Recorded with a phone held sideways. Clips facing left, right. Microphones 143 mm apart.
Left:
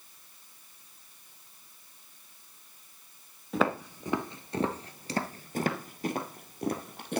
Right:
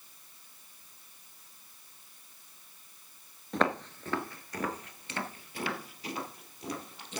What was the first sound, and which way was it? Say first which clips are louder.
Footsteps: left 1 dB; 5° left (ahead or behind).